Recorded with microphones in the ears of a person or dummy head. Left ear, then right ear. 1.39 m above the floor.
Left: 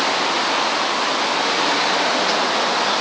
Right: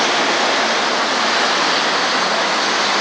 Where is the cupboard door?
No cupboard door in this recording.